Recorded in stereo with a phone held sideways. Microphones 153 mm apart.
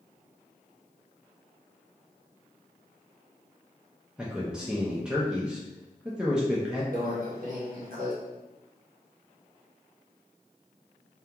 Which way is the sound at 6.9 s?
60° right (ahead or behind).